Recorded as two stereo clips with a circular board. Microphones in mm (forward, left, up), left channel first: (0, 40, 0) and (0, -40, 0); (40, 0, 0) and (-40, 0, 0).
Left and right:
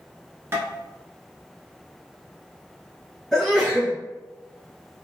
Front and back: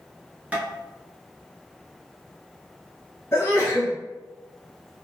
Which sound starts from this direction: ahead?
A sneeze, at 3.3 s.